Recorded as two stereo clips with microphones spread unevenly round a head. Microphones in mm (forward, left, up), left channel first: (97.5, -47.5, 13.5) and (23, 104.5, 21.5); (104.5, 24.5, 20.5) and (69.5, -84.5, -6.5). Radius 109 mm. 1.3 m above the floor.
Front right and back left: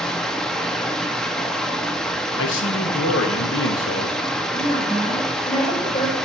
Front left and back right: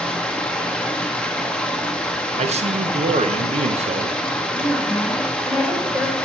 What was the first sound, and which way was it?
Running water, 25° left.